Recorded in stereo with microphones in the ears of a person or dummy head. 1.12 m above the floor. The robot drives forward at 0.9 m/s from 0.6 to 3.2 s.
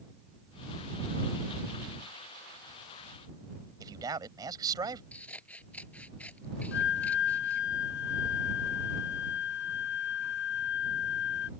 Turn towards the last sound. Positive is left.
turn(degrees=60)  # may be behind; listen again after turning